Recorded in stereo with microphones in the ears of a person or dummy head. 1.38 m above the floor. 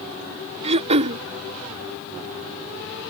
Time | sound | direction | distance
0.6 | throat clearing | 40° right (ahead or behind) | ?